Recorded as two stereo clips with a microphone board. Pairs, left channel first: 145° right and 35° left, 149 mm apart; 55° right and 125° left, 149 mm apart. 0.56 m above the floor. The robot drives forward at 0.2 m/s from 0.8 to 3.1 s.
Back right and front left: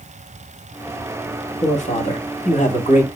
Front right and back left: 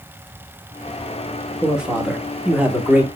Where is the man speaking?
150° right, 1.0 m; by 3.1 s 160° right, 1.2 m.